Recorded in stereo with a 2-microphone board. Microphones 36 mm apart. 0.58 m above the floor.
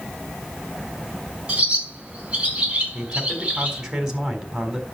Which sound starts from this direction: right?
A bird, at 1.5 s.